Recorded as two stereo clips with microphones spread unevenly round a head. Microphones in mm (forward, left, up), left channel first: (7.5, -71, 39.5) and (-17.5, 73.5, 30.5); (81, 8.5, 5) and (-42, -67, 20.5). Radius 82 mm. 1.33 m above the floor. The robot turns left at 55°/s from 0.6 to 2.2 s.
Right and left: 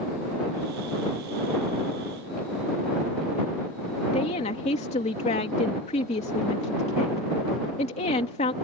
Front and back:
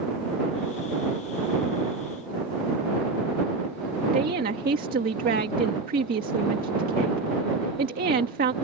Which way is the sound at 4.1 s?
125° right.